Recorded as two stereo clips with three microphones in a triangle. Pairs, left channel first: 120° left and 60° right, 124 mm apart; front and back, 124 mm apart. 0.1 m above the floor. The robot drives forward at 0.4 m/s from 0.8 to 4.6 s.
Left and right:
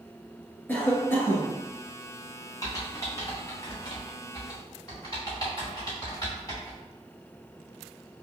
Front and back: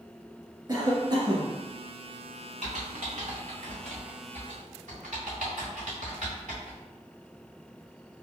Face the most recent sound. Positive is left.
turn(degrees=180)